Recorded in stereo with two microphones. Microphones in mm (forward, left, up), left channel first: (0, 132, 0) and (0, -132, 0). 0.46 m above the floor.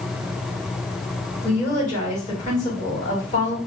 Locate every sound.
1.4 s a woman speaking: 25° left (ahead or behind), 1.7 m